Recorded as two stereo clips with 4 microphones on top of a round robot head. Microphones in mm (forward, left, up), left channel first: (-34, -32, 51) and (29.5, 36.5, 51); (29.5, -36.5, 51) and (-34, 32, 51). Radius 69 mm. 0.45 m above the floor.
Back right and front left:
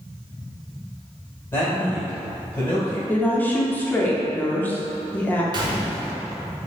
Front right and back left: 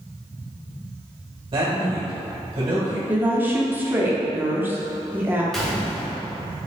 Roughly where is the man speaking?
Behind.